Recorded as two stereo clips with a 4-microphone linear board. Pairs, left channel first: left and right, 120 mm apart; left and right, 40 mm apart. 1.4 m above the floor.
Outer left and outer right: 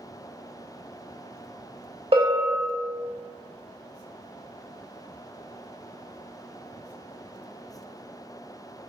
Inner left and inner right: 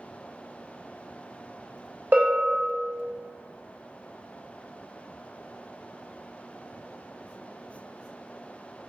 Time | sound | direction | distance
2.1 | a bell | 50° right (ahead or behind) | 0.7 m